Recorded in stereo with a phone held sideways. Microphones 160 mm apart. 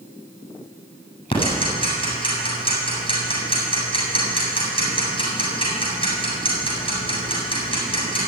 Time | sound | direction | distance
1.3 | ticking | 35° left (ahead or behind) | 7.5 m